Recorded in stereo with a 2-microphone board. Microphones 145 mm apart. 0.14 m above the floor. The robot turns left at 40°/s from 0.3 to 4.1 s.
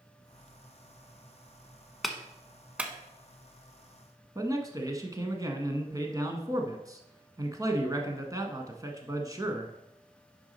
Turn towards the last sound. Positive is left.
turn(degrees=-25)  # may be behind; listen again after turning